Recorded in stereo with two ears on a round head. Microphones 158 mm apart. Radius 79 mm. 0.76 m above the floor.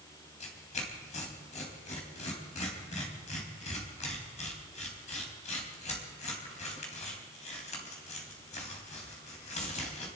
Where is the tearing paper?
40° left (ahead or behind), 3.5 m.